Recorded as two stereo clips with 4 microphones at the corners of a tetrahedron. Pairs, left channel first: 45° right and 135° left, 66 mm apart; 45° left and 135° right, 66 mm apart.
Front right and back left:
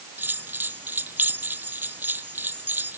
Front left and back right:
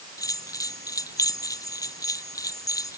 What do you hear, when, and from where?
0.2 s a bell: 75° left